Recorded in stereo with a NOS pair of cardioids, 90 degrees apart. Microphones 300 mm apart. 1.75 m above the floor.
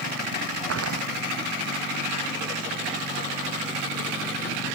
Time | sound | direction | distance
0.7 | footsteps | 50° right | ?